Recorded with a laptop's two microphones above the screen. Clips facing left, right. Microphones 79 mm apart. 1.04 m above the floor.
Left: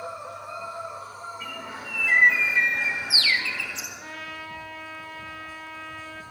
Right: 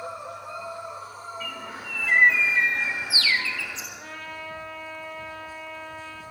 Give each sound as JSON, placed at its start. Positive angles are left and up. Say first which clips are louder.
{"t": 1.4, "sound": "a bird", "louder": "even", "side_deg": 20, "distance_m": 7.5}
{"t": 4.0, "sound": "a trumpet", "louder": "even", "side_deg": 5, "distance_m": 6.5}